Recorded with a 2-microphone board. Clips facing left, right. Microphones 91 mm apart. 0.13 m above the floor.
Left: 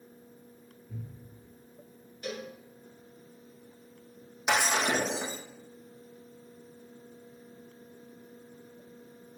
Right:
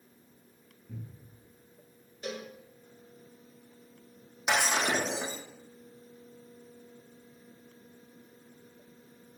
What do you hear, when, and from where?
0.9 s a cupboard door: 65° right (ahead or behind), 2.5 m
2.2 s a cowbell: 25° right (ahead or behind), 2.0 m
4.5 s breaking glass: 5° left (ahead or behind), 2 m